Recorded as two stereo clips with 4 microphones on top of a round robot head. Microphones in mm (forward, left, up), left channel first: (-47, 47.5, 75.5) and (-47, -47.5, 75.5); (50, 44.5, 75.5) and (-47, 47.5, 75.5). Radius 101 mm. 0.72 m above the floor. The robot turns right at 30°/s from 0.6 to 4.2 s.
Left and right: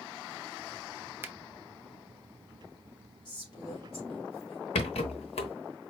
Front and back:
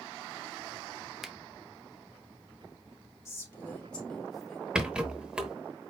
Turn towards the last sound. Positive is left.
turn(degrees=100)